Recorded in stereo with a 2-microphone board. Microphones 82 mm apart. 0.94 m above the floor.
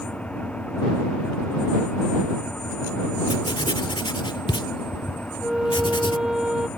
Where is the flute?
10° right (ahead or behind).